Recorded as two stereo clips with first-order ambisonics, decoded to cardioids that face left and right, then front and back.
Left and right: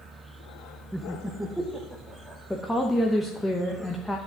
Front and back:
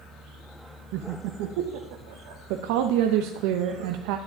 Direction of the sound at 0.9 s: 175° right.